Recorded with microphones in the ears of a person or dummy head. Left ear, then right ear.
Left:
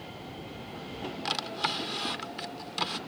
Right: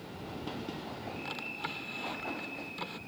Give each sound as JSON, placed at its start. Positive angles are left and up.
{"t": 1.2, "sound": "a drawer", "side_deg": 45}